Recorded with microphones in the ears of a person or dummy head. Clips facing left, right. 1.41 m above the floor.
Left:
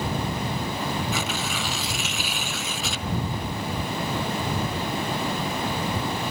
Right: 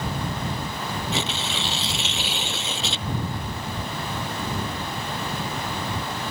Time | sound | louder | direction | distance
1.1 | tearing paper | even | 25° right (ahead or behind) | ?